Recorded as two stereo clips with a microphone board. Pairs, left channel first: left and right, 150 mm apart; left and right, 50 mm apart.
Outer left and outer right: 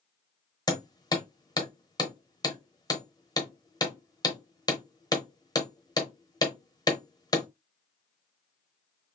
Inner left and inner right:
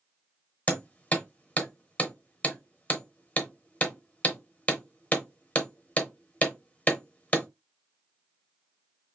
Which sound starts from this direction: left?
Hammering, at 0.7 s.